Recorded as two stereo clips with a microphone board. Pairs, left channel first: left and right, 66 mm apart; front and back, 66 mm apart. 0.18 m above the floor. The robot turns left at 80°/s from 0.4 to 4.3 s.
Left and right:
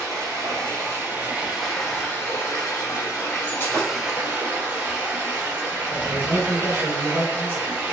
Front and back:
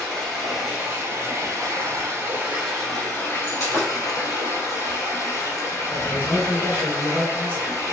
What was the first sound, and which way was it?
Running water, 80° right.